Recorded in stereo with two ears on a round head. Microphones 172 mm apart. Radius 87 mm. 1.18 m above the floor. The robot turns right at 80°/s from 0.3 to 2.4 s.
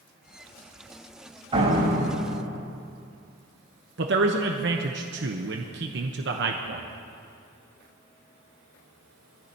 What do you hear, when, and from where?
1.5 s a door slam: 150° right, 4.5 m; by 2.7 s 80° right, 4.5 m
4.0 s a man speaking: 60° right (ahead or behind), 0.9 m